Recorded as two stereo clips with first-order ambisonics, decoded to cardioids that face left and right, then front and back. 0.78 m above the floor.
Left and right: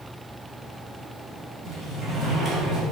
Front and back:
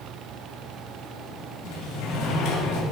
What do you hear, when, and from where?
1.6 s a sliding door: 15° right, 2.5 m